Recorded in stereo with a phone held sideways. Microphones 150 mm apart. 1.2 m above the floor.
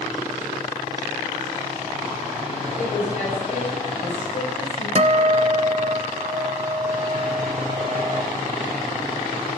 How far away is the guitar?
About 0.5 m.